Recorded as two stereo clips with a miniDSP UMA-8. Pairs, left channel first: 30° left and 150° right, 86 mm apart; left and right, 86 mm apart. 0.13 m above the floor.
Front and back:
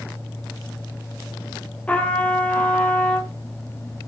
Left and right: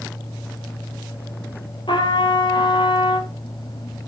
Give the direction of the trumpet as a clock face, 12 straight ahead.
9 o'clock.